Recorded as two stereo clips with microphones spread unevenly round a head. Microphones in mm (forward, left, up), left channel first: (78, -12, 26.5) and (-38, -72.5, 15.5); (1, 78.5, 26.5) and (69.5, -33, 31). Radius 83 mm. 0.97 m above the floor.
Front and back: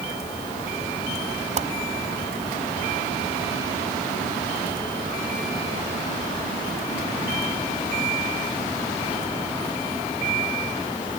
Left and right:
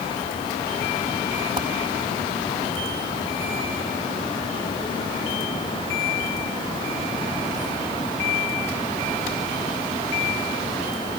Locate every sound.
1.6 s a whoosh: 120° right